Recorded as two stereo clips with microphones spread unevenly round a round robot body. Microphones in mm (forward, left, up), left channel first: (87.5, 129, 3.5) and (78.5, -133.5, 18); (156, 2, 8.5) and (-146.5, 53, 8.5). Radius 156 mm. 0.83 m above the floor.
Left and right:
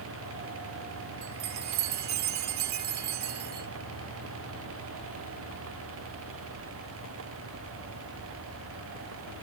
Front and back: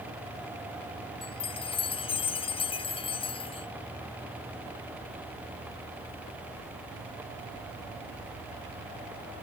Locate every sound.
1.2 s a chime: 85° right